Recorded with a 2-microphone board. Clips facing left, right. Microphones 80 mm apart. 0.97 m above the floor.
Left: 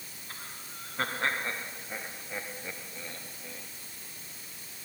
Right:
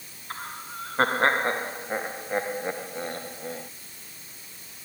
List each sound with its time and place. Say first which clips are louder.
0.3 s laughter: right 11 dB; 45° right (ahead or behind); by 3.7 s 50° right (ahead or behind)